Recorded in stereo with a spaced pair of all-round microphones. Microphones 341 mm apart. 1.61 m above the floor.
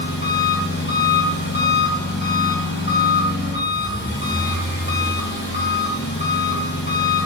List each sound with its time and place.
0.0 s an engine running: 30° left (ahead or behind), 2.5 m